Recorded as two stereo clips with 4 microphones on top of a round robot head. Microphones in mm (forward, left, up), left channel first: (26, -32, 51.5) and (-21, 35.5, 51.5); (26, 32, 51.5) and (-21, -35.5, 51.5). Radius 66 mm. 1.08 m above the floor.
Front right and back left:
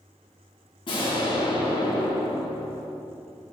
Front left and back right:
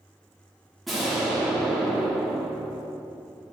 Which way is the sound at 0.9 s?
35° right.